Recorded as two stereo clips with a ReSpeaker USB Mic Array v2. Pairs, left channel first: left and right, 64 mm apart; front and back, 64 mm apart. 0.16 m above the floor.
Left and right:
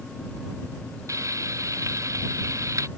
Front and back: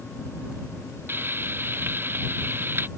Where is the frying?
125° right.